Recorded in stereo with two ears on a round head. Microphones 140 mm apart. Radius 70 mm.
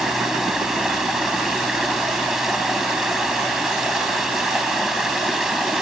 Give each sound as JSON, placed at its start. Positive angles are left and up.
{"t": 0.0, "sound": "running water", "side_deg": 0}